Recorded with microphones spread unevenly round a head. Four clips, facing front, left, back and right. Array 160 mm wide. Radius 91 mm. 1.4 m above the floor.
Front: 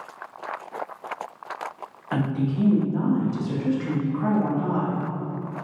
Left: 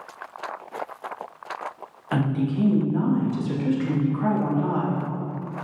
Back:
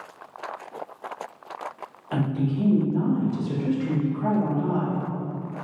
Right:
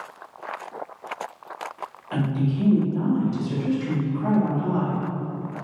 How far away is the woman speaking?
About 2.5 m.